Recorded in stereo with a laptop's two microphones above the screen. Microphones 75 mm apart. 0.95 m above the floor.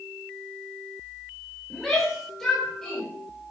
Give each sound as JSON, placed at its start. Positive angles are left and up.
{"t": 1.7, "sound": "a shout", "side_deg": 0, "distance_m": 4.5}